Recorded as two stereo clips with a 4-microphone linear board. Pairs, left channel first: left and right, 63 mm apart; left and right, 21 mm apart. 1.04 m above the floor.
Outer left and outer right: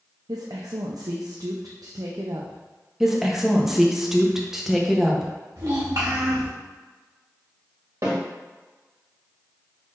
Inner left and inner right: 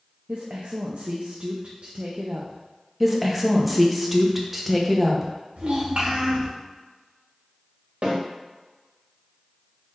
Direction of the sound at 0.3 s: 80° right.